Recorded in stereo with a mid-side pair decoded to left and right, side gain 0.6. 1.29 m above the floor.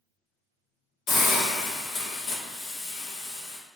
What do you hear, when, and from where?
1.1 s a hiss: 65° left, 1.4 m